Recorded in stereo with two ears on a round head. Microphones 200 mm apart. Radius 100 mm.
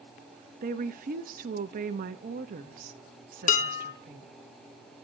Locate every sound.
0.6 s a woman speaking: 40° right (ahead or behind), 0.8 m
3.5 s dishes clattering: 35° left (ahead or behind), 1.0 m